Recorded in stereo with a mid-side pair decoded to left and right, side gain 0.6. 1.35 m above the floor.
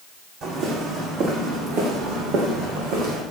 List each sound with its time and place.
0.4 s footsteps: 55° right, 4.5 m; by 3.2 s 80° right, 5 m